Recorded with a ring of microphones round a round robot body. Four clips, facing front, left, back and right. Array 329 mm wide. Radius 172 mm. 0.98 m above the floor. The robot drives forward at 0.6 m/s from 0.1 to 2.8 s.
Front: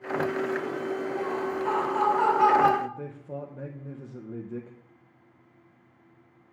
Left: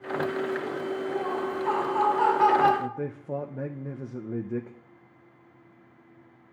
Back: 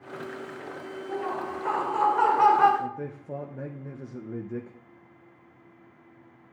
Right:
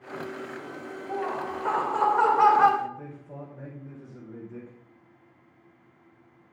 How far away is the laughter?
About 4.5 m.